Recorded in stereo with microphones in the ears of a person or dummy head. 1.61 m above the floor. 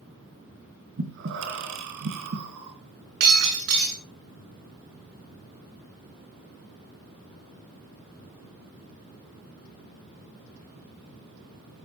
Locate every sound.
1.0 s breathing: 60° right (ahead or behind), 3 m
3.2 s breaking glass: 60° right (ahead or behind), 8 m